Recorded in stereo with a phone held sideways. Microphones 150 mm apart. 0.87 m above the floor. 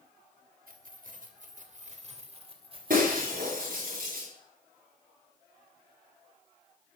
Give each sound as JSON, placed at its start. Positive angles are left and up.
{"t": 0.7, "sound": "keys jangling", "side_deg": -75, "distance_m": 2.5}
{"t": 2.9, "sound": "breaking glass", "side_deg": -65, "distance_m": 9.0}